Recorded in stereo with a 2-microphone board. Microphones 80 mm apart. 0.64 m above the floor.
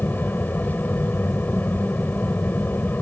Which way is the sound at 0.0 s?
20° left (ahead or behind).